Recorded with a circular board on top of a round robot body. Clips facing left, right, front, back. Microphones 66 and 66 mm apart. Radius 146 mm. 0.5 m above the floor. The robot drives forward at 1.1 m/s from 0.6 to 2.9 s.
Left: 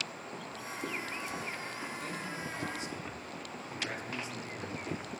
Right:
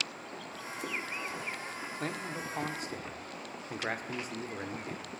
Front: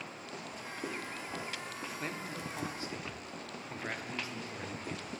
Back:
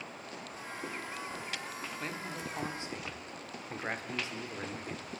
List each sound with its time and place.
1.9 s a man speaking: 85° right, 1.9 m; by 5.1 s 120° right, 2 m